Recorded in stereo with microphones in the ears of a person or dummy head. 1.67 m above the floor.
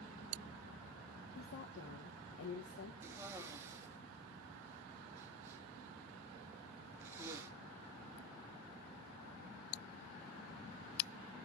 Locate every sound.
1.4 s a woman speaking: 75° left (ahead or behind), 1.5 m
3.0 s a cough: 10° right (ahead or behind), 3 m